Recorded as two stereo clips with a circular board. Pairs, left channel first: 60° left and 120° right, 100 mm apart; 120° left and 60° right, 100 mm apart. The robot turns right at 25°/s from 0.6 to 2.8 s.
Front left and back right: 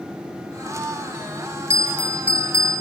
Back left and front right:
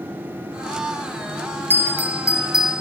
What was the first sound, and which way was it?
A bell, 50° left.